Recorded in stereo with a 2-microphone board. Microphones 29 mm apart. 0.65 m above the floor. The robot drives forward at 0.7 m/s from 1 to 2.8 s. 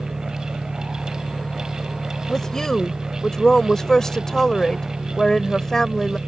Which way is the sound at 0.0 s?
85° left.